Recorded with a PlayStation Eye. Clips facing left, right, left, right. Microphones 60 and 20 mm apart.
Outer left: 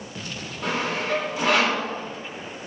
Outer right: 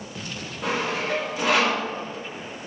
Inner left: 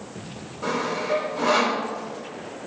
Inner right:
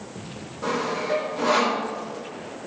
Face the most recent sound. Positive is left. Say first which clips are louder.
# even, even
turn(degrees=-5)  # may be behind; listen again after turning